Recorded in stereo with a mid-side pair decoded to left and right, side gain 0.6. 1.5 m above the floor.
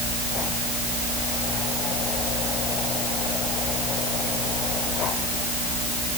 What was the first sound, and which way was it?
Only background noise.